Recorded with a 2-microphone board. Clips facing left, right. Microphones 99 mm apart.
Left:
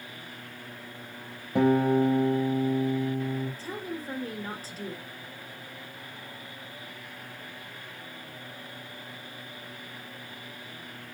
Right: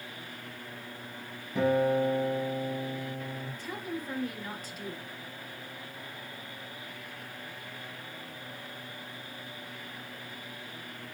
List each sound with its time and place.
1.6 s a guitar: 65° left (ahead or behind), 4.5 m
3.6 s a woman speaking: 35° left (ahead or behind), 3 m